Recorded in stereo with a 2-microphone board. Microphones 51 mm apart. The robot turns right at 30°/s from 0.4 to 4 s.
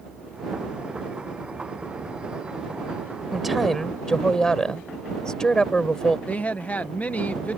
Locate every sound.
3.3 s a woman speaking: 5° right (ahead or behind); by 6.2 s 15° left (ahead or behind)
6.3 s a woman speaking: 30° left (ahead or behind)